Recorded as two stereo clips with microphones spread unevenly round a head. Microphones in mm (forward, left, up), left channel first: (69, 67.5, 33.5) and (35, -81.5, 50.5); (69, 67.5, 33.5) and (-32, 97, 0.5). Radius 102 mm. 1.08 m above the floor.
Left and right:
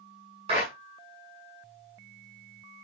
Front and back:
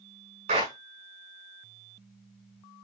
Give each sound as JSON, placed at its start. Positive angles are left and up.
{"t": 0.5, "sound": "a clap", "azimuth_deg": -165, "distance_m": 9.5}